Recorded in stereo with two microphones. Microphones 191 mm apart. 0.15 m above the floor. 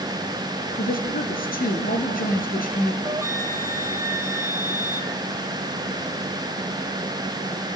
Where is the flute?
15° right (ahead or behind), 0.8 m.